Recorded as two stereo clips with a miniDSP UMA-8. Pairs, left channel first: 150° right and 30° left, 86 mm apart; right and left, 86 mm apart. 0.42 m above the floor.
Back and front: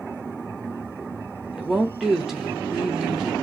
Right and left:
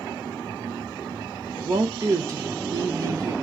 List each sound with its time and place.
1.5 s a woman speaking: 115° left, 1.1 m